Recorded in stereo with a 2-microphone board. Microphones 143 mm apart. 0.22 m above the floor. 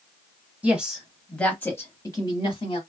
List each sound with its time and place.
0.6 s a woman speaking: 10° right (ahead or behind), 1.2 m; by 2.8 s 40° left (ahead or behind), 1.3 m